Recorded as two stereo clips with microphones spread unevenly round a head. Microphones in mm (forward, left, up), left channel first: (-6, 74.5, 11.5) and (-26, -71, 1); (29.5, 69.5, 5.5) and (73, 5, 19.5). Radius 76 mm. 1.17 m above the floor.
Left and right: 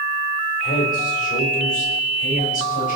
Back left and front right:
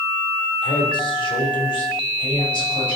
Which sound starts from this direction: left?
A man speaking, at 0.6 s.